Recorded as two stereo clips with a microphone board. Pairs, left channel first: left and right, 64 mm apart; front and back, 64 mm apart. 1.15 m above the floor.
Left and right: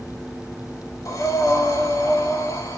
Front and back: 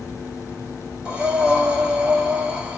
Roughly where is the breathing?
Left.